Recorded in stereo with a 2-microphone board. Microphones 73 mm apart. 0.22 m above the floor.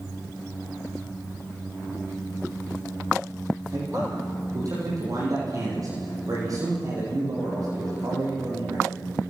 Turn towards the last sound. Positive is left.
turn(degrees=-55)  # may be behind; listen again after turning